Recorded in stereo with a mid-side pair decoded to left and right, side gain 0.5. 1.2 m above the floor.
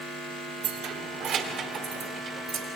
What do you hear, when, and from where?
0.6 s keys jangling: 60° right, 2.5 m; by 2.7 s 45° right, 3.5 m